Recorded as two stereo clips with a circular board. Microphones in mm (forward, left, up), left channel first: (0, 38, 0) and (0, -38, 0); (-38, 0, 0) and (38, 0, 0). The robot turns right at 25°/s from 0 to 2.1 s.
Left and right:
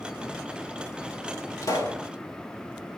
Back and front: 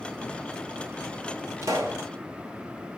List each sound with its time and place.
1.6 s a pop: 50° left, 1.7 m; by 2.0 s 60° left, 1.7 m